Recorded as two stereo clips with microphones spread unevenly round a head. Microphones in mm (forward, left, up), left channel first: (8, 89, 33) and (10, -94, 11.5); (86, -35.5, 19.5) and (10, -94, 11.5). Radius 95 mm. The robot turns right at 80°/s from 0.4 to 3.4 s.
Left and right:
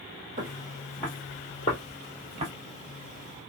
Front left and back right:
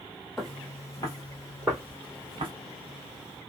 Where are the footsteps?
50° right, 1.4 m; by 2.5 s 135° right, 1.3 m.